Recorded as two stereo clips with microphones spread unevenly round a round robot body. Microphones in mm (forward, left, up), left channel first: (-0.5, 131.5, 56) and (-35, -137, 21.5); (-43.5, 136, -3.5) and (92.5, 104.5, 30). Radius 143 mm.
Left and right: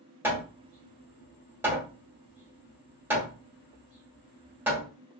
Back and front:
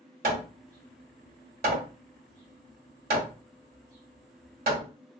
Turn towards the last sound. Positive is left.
turn(degrees=-15)